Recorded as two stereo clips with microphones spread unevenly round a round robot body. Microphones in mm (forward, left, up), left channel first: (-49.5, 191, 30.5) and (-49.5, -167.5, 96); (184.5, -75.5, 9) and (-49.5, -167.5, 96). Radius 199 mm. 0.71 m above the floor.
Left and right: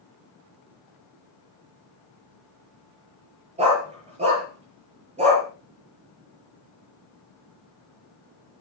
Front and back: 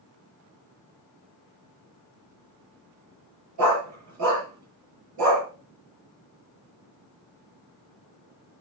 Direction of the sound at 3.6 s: 160° right.